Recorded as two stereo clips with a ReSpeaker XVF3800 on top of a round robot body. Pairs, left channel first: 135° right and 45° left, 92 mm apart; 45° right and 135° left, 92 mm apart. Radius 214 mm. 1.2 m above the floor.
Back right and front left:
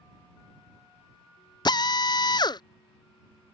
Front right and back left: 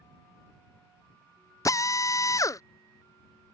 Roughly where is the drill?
Right.